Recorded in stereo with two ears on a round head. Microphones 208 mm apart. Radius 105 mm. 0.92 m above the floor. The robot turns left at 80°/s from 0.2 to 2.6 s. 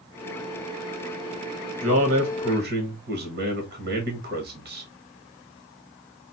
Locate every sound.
1.8 s a man speaking: 40° right, 1.0 m; by 4.9 s 105° right, 1.0 m